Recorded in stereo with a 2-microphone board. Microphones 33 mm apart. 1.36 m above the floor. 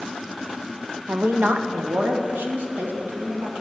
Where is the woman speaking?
75° right (ahead or behind), 0.5 m; by 3.6 s 90° right, 1.9 m.